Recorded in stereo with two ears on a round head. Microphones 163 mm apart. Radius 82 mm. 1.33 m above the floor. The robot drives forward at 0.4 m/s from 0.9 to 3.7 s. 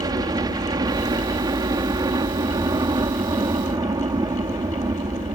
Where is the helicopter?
20° right (ahead or behind).